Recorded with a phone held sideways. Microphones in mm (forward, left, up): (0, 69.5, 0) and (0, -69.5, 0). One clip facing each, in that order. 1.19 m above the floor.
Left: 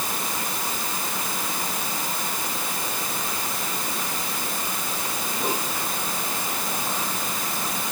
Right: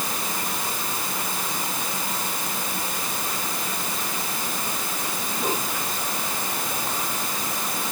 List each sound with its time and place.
Only background noise.